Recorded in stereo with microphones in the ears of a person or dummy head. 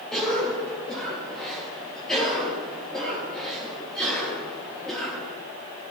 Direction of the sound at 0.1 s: Centre (ahead or behind).